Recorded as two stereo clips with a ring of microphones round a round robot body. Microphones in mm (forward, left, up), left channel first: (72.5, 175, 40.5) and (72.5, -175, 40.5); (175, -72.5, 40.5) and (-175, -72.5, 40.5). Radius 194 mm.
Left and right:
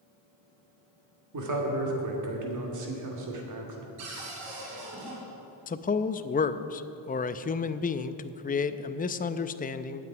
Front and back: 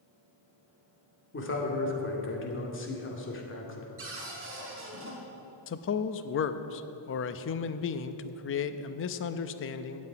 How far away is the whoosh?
No whoosh in this recording.